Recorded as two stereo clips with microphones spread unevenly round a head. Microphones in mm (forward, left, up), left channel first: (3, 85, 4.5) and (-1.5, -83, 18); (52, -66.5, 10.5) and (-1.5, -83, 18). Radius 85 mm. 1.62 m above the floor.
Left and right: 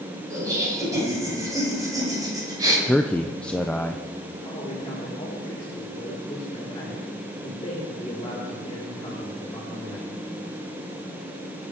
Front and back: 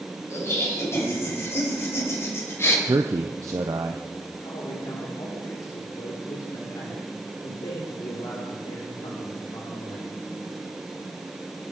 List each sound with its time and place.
0.3 s laughter: 20° right, 7.5 m; by 2.8 s 25° right, 6.5 m
2.9 s a man speaking: 175° left, 0.6 m
4.4 s a man speaking: 20° left, 4 m